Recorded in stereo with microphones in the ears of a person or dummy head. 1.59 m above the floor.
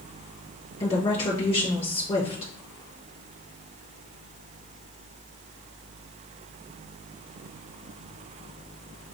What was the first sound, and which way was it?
A woman speaking, 35° left (ahead or behind).